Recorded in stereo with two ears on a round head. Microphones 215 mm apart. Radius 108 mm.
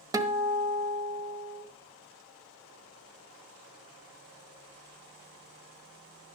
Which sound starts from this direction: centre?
A guitar, at 0.1 s.